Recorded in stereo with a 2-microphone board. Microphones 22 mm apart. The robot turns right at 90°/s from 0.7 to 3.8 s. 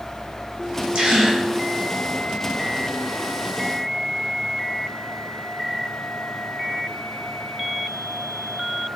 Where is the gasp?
80° right, 0.8 m; by 1.4 s 35° right, 0.8 m.